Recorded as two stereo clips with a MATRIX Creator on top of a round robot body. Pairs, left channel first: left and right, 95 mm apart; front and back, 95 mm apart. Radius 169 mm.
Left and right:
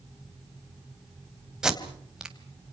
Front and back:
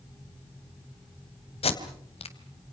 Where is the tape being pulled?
5° right, 3 m.